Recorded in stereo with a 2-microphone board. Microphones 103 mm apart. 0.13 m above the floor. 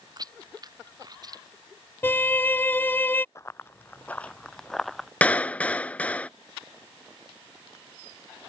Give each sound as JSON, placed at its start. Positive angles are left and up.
{"t": 0.2, "sound": "chewing", "side_deg": -40}
{"t": 2.0, "sound": "a violin", "side_deg": 20}
{"t": 3.4, "sound": "running footsteps", "side_deg": 30}
{"t": 5.2, "sound": "a clap", "side_deg": 15}